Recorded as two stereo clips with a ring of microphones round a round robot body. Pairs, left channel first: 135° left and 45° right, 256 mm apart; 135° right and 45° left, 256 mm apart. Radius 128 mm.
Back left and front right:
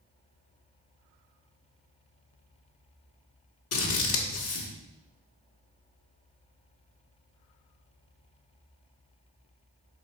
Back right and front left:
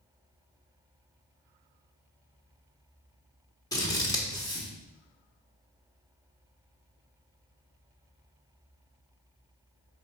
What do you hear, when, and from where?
3.7 s scissors: 150° left, 1.3 m